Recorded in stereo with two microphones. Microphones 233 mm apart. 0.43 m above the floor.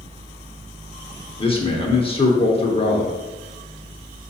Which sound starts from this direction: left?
A man speaking, at 1.4 s.